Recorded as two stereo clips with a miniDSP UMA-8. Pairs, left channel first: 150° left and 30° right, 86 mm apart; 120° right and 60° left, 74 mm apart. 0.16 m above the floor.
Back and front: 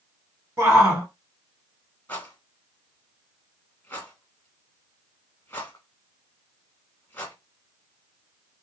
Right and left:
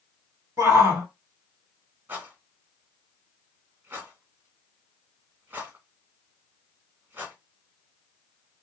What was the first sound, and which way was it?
A shout, 20° left.